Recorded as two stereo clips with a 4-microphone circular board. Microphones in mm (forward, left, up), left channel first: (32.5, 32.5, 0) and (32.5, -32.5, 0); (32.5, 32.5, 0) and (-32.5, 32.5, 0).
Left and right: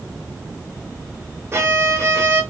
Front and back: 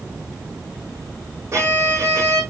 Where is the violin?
135° right, 4 m.